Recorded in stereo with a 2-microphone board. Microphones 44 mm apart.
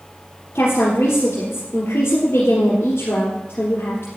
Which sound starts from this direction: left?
A woman speaking, at 0.6 s.